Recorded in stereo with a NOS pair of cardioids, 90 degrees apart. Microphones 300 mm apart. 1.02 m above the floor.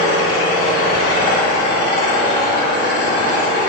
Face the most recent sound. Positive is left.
turn(degrees=30)